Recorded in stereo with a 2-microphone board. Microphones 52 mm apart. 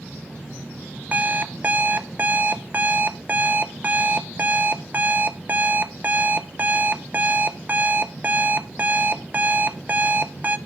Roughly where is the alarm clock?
Right.